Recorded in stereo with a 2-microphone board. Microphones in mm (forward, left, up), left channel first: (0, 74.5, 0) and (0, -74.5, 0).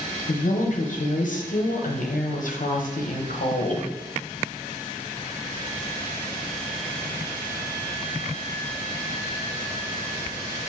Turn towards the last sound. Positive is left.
turn(degrees=65)  # may be behind; listen again after turning